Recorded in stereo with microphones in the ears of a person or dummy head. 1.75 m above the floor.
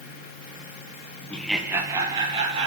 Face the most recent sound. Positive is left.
turn(degrees=-30)  # may be behind; listen again after turning